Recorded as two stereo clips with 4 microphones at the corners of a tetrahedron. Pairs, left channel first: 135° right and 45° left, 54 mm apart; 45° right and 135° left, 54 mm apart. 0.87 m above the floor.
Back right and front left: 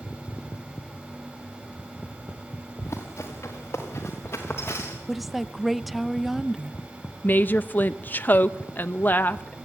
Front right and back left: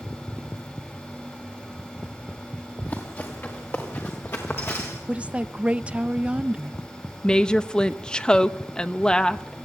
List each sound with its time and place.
2.8 s running footsteps: 100° right, 5.5 m; by 5.0 s 90° right, 6 m
5.1 s a woman speaking: 130° left, 0.6 m
7.2 s a woman speaking: 110° right, 0.8 m